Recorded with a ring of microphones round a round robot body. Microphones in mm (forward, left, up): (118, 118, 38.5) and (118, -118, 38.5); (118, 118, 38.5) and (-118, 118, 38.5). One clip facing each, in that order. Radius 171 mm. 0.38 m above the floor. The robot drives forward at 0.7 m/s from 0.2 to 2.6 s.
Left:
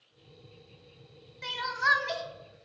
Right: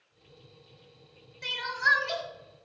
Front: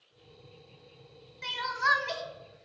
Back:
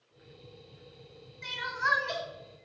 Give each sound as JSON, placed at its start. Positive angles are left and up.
{"t": 1.4, "sound": "crying", "azimuth_deg": 5, "distance_m": 1.7}